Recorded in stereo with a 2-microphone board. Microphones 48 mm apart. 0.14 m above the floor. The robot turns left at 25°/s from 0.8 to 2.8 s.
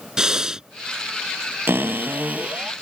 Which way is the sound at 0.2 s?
15° right (ahead or behind).